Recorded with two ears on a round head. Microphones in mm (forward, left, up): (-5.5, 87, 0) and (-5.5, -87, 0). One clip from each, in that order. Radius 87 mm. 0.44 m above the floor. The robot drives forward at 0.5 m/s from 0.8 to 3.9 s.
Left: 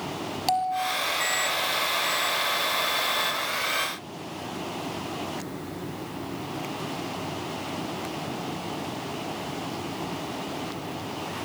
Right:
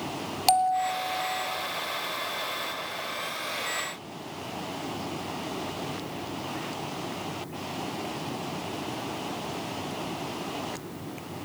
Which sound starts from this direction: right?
A bell, at 0.5 s.